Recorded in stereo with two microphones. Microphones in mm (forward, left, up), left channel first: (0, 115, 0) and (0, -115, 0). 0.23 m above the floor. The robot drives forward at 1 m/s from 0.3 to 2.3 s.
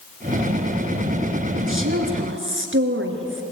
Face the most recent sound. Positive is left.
turn(degrees=-60)  # may be behind; listen again after turning